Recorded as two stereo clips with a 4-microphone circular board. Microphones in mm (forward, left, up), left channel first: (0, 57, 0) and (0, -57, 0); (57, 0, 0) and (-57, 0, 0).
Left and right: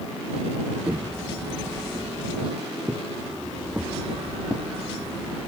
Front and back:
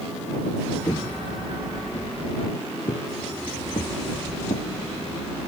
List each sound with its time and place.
0.9 s footsteps: 25° right; by 4.7 s 10° right